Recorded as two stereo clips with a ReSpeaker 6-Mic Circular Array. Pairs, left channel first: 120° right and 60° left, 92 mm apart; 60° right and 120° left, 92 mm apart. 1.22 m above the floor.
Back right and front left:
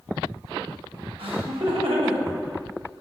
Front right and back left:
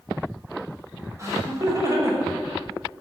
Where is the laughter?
65° left, 5.5 m.